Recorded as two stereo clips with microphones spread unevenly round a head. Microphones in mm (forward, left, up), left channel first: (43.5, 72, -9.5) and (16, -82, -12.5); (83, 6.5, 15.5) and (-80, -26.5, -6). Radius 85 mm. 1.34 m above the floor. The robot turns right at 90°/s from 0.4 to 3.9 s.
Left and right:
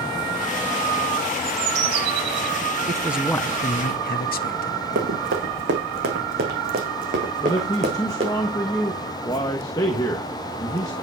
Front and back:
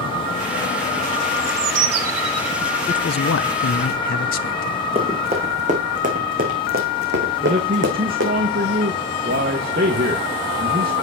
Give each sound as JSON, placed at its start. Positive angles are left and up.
{"t": 1.4, "sound": "a bird", "azimuth_deg": 170, "distance_m": 2.0}
{"t": 2.9, "sound": "a man speaking", "azimuth_deg": -40, "distance_m": 0.9}
{"t": 5.0, "sound": "running footsteps", "azimuth_deg": -110, "distance_m": 5.0}
{"t": 7.4, "sound": "a man speaking", "azimuth_deg": 150, "distance_m": 1.4}